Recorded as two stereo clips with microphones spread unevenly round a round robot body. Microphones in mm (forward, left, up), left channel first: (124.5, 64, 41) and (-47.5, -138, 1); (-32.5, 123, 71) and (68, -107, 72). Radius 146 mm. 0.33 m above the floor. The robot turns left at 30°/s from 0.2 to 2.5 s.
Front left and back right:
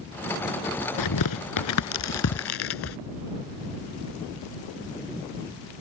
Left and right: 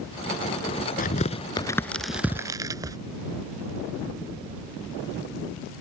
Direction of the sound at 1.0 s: 55° left.